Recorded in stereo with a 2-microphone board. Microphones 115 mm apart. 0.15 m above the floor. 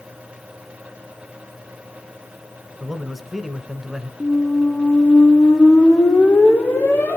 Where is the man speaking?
Centre (ahead or behind), 1.4 m.